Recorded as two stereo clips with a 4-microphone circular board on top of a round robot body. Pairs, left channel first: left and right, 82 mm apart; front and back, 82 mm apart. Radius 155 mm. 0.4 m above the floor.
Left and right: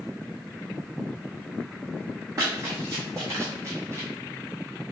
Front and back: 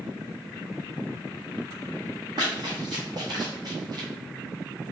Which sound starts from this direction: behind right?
Running footsteps, at 2.4 s.